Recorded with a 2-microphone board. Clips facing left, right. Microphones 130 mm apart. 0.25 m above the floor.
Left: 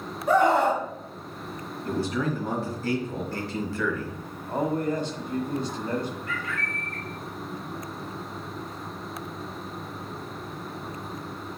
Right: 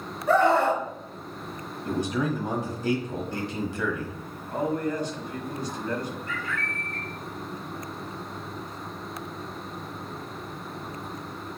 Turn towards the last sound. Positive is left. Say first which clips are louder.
# even
turn(degrees=-35)  # may be behind; listen again after turning